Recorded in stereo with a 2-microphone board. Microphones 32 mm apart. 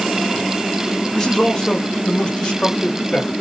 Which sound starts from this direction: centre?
A man speaking, at 1.1 s.